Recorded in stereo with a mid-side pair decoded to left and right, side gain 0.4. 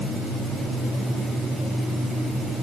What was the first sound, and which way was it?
Only background noise.